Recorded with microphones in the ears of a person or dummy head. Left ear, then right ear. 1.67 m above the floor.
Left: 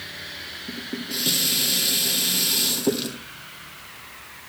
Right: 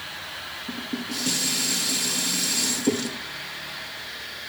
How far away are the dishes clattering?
About 2.5 m.